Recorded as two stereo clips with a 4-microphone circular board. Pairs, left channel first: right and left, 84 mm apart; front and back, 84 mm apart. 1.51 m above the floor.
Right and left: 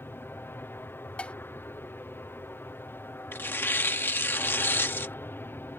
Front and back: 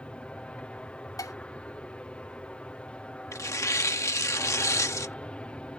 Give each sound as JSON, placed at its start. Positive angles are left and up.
{"t": 0.0, "sound": "an aircraft", "azimuth_deg": -60}
{"t": 1.2, "sound": "dishes clattering", "azimuth_deg": -20}
{"t": 3.3, "sound": "tearing paper", "azimuth_deg": -35}